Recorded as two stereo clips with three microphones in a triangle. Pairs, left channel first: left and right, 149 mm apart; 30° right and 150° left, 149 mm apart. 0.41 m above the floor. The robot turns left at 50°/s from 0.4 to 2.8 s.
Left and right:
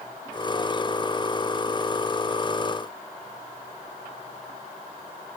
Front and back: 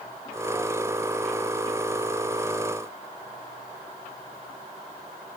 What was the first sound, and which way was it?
Only background noise.